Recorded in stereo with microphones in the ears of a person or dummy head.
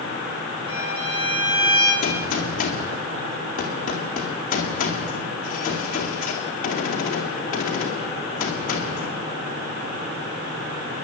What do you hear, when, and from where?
0.7 s a violin: 25° right (ahead or behind), 4 m
2.0 s a gunshot: 45° left (ahead or behind), 2.5 m